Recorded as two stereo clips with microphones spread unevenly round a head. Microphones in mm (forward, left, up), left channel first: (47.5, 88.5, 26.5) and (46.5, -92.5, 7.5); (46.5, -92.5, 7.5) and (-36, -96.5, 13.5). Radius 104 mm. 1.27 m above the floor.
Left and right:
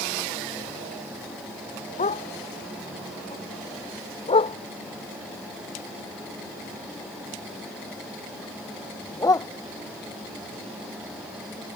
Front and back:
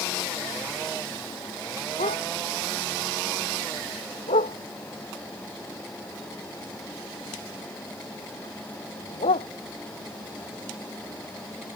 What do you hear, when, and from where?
2.0 s a dog barking: 40° left; by 9.5 s 20° left